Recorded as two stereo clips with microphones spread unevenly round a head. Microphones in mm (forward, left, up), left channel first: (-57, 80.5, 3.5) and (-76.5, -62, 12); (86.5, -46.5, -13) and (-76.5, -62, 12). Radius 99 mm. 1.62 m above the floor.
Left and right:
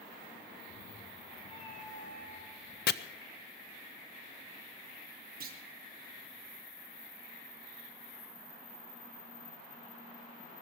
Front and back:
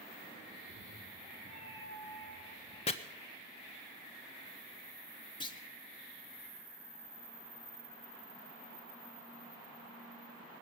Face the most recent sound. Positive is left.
turn(degrees=-60)